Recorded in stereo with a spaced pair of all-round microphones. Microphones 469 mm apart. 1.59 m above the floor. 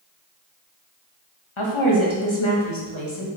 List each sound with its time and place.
1.6 s a woman speaking: 85° left, 2.5 m; by 3.3 s 70° left (ahead or behind), 3 m